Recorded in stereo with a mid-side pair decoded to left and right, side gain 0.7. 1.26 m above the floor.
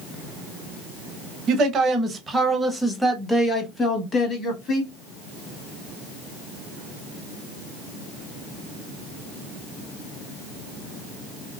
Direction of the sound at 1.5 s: 50° right.